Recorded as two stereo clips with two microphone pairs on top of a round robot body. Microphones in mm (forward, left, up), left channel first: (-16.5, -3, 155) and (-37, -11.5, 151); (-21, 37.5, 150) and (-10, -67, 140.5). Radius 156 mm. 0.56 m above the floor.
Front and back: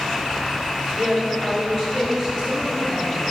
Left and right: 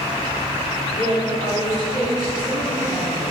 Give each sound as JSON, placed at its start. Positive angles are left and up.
{"t": 0.9, "sound": "a woman speaking", "azimuth_deg": -45, "distance_m": 4.0}